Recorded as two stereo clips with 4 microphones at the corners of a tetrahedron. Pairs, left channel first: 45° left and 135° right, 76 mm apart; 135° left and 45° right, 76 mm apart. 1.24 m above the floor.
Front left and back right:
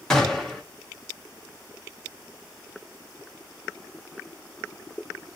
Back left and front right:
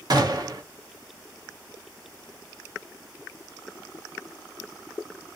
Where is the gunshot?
35° right, 0.9 m.